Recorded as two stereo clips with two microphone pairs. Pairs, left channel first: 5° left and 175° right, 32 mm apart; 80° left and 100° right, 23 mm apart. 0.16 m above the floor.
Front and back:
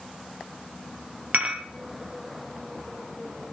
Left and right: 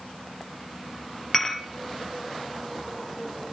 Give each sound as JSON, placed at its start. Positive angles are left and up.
{"t": 1.3, "sound": "dishes clattering", "azimuth_deg": 160, "distance_m": 2.5}